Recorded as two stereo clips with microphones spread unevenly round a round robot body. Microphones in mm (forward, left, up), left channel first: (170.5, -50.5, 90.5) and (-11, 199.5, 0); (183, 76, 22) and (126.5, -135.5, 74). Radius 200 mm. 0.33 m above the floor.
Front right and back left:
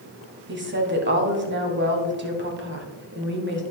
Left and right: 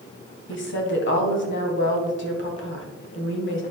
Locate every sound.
0.5 s a woman speaking: 85° left, 2 m